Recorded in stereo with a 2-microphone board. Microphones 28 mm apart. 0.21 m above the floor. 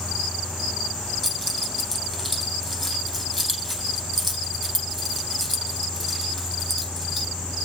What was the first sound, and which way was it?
Keys jangling, 10° left (ahead or behind).